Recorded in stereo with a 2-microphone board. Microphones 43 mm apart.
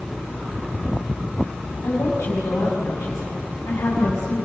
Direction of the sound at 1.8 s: 75° left (ahead or behind).